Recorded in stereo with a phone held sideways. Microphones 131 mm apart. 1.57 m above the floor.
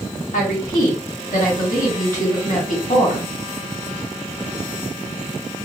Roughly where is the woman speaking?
Left.